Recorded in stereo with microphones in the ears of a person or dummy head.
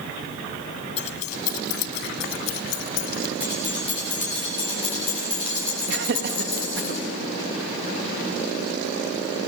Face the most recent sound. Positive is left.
turn(degrees=-60)  # may be behind; listen again after turning